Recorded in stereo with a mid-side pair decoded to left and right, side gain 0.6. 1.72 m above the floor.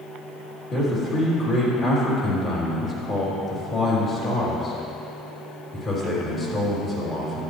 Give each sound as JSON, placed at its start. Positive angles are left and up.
{"t": 0.7, "sound": "a man speaking", "azimuth_deg": 35, "distance_m": 3.5}